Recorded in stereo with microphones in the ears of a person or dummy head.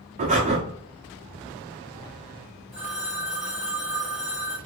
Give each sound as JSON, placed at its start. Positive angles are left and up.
{"t": 0.2, "sound": "breathing", "side_deg": -30, "distance_m": 0.8}
{"t": 2.7, "sound": "a phone ringing", "side_deg": 0, "distance_m": 1.8}